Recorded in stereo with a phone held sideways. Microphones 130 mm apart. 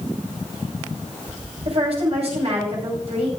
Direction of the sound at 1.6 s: 55° right (ahead or behind).